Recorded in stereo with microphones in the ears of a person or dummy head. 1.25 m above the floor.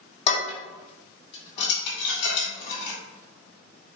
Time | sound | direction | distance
0.3 | dishes clattering | 35° left (ahead or behind) | 1.9 m